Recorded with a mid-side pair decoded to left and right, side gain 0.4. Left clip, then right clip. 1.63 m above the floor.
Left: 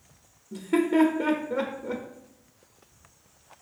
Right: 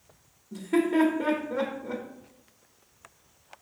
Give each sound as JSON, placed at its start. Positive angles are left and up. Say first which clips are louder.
{"t": 0.5, "sound": "laughter", "louder": "left 1 dB", "azimuth_deg": 30, "distance_m": 0.6}